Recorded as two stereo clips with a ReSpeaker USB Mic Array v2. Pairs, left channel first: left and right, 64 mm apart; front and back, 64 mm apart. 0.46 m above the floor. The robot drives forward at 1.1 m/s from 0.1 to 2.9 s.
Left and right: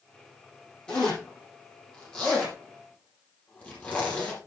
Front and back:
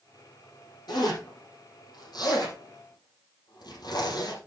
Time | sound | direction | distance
0.9 | a zipper | 15° left | 7 m